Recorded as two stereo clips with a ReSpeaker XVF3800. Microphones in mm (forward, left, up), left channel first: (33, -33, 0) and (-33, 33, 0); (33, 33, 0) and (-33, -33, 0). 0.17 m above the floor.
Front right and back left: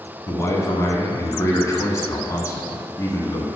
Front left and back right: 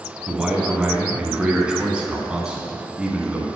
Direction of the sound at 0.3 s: 65° right.